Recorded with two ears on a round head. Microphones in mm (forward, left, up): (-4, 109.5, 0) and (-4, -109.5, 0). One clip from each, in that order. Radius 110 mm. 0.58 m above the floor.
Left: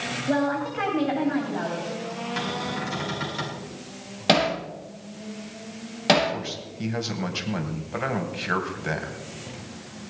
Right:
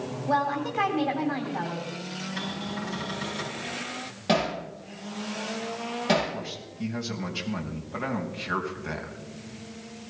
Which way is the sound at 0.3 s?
20° right (ahead or behind).